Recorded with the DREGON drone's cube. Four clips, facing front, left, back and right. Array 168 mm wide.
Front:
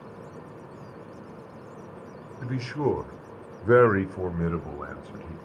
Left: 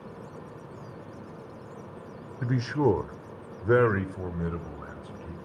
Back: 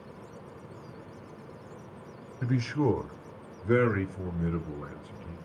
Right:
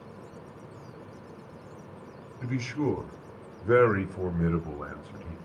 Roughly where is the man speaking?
Left.